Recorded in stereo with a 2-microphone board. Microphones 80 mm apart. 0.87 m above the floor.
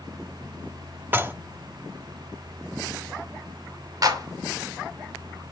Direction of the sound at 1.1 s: 25° right (ahead or behind).